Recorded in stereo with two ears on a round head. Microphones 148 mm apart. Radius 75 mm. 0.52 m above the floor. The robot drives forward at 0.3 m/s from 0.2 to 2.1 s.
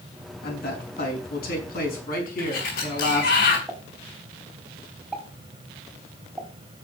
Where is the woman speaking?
65° left (ahead or behind), 5 m; by 3.4 s 60° left (ahead or behind), 5 m.